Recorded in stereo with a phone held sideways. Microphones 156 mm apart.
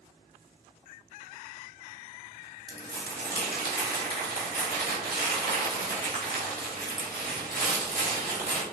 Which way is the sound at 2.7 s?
80° right.